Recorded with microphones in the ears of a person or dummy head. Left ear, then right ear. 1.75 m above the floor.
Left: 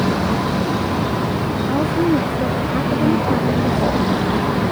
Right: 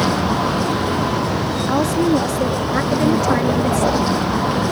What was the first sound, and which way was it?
A vehicle, 80° right.